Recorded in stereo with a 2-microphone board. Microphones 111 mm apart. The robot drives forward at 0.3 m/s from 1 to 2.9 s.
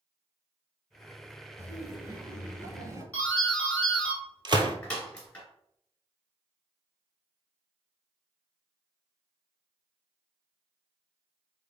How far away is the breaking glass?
No breaking glass in this recording.